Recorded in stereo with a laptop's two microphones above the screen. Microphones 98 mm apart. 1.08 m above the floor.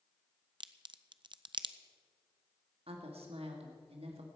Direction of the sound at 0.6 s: 55° right (ahead or behind).